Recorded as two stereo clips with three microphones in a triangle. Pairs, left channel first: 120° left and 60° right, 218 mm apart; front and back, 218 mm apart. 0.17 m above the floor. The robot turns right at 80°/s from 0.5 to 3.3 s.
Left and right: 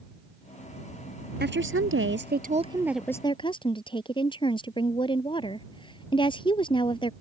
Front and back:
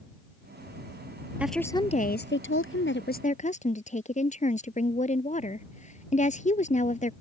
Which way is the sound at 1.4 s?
100° right.